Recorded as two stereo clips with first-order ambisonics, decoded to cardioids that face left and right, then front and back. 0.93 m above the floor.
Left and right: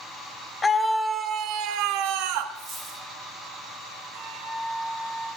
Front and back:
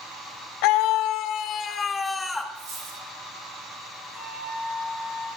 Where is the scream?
15° left, 0.9 m; by 2.5 s 85° right, 1.4 m.